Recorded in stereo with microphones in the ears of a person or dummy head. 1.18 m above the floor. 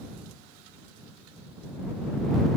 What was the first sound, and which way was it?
Only background noise.